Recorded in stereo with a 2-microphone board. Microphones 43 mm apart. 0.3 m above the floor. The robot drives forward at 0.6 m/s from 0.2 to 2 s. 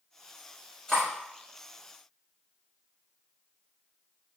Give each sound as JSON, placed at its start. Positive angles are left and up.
{"t": 0.9, "sound": "cutlery clinking", "side_deg": 10, "distance_m": 0.9}